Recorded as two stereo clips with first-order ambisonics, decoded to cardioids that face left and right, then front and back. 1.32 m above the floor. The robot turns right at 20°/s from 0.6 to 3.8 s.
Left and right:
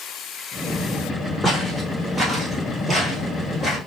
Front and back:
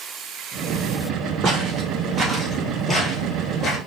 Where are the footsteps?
160° left, 1.6 m; by 3.8 s 25° left, 1.4 m.